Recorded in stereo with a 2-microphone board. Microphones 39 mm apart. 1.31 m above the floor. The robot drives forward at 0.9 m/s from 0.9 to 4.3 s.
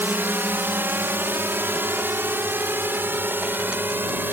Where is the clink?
I don't hear a clink.